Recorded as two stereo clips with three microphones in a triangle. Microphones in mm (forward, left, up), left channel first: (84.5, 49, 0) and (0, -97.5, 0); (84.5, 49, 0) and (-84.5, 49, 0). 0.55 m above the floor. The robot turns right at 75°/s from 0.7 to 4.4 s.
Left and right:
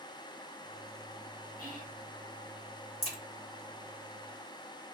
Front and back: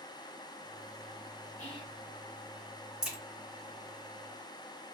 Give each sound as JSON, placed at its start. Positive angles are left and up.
{"t": 1.6, "sound": "whispering", "azimuth_deg": 35, "distance_m": 1.8}
{"t": 3.0, "sound": "a crack", "azimuth_deg": 95, "distance_m": 1.6}